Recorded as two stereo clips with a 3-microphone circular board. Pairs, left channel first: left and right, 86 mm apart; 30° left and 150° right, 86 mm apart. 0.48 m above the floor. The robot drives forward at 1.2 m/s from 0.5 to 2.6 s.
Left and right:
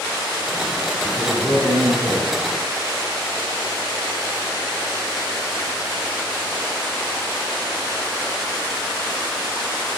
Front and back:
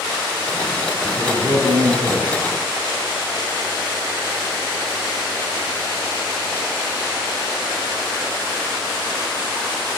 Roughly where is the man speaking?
Behind right.